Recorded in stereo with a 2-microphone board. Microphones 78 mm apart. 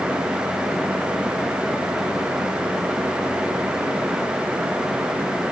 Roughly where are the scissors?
No scissors in this recording.